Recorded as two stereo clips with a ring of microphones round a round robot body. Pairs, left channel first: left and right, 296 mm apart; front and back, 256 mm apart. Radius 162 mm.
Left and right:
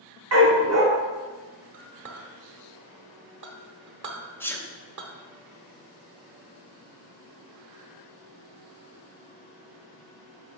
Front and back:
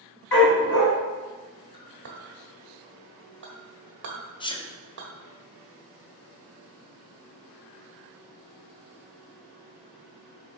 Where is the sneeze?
20° left, 0.8 m.